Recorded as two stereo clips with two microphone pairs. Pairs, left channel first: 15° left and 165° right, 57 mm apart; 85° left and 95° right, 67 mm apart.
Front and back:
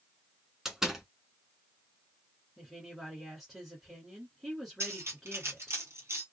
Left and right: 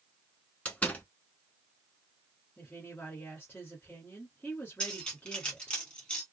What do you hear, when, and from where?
0.7 s a door slam: 120° left, 1.0 m
2.6 s a woman speaking: 110° left, 1.9 m
4.8 s cutlery clinking: 160° left, 1.7 m